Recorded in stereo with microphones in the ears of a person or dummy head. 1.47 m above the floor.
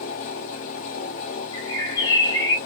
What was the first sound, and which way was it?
A fan, 45° left (ahead or behind).